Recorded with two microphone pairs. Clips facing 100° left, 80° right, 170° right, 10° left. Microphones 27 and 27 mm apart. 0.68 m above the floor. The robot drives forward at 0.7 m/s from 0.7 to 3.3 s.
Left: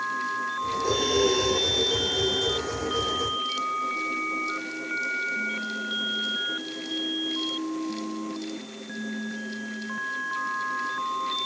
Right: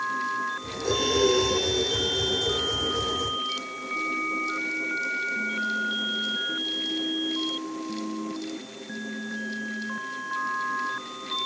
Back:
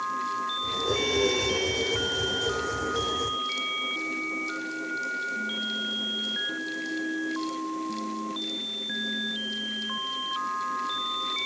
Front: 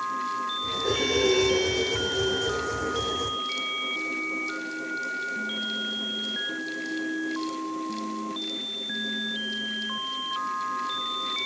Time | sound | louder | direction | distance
0.8 | breathing | right 1 dB, front 2 dB | 5° left | 7 m